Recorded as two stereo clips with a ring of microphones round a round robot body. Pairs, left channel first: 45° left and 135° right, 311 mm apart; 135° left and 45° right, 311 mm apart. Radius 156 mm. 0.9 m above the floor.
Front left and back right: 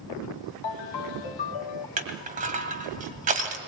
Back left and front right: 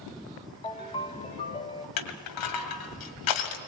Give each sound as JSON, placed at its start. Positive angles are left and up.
{"t": 0.6, "sound": "a ringtone", "azimuth_deg": 60, "distance_m": 1.6}
{"t": 2.0, "sound": "crushing", "azimuth_deg": 160, "distance_m": 2.0}